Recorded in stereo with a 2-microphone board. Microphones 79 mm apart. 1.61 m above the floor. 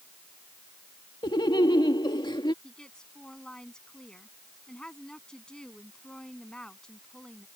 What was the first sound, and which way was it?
Laughter, 85° left.